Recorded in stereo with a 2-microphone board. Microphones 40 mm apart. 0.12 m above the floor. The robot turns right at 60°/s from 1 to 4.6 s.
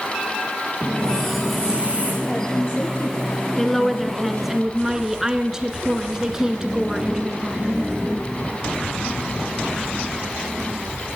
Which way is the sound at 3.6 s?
10° left (ahead or behind).